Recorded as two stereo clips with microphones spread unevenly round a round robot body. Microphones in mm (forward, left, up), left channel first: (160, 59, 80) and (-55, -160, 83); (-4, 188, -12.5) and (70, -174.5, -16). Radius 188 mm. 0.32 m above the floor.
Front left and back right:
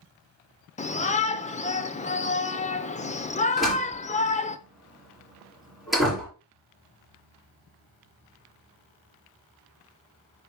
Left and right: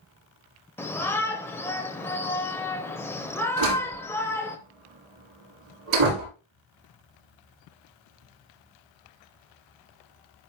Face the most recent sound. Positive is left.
turn(degrees=-45)